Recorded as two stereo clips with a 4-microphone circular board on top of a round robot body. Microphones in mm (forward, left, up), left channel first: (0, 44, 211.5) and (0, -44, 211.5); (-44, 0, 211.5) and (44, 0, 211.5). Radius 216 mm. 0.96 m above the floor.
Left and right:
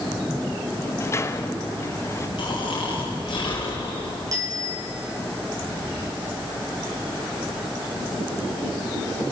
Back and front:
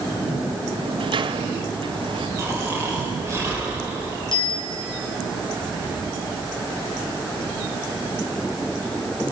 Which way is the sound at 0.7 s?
30° left.